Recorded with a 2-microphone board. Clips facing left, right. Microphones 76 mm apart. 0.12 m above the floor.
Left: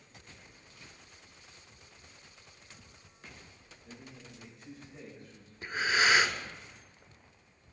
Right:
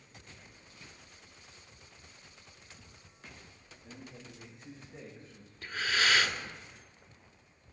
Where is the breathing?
25° left (ahead or behind), 0.7 m.